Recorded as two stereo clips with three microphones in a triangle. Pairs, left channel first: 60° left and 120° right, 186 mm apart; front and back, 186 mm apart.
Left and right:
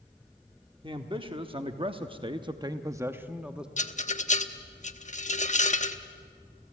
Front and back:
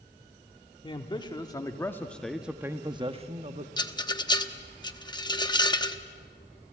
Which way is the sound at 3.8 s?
55° left.